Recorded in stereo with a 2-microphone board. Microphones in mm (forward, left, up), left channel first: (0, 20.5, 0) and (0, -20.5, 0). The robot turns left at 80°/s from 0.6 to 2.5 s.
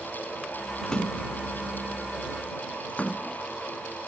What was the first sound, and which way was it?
A splash, 15° left (ahead or behind).